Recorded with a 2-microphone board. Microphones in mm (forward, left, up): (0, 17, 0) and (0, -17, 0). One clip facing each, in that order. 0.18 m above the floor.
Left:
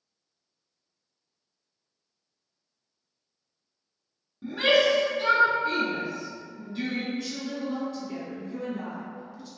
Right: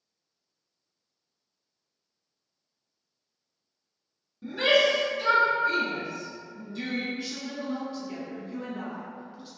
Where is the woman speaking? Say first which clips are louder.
Left 2 dB; 25° right (ahead or behind), 1.3 m.